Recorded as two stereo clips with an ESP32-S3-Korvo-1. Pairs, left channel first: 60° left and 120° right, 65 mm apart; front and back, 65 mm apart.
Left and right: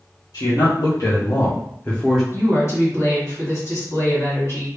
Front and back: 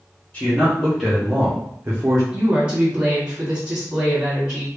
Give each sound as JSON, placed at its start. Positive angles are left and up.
{"t": 0.3, "sound": "a man speaking", "azimuth_deg": 70, "distance_m": 1.3}
{"t": 2.3, "sound": "a woman speaking", "azimuth_deg": 105, "distance_m": 1.9}